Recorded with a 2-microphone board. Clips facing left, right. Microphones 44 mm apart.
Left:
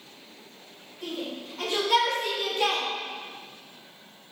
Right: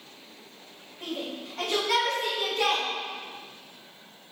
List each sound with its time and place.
1.0 s a shout: 40° right (ahead or behind), 1.1 m; by 2.8 s 70° right (ahead or behind), 2.5 m